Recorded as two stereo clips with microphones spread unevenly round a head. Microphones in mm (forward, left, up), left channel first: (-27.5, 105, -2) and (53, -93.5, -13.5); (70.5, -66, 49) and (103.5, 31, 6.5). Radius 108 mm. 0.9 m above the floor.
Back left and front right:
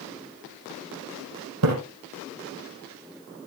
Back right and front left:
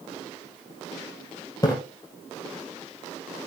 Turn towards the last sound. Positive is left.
turn(degrees=-60)